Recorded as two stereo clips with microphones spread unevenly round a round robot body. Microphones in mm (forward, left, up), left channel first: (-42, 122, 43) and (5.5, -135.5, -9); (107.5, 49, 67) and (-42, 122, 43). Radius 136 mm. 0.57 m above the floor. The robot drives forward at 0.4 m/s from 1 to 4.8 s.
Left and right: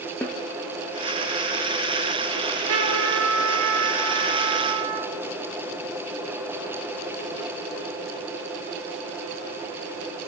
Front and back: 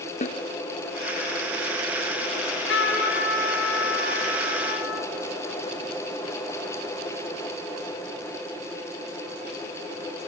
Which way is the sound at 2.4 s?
35° right.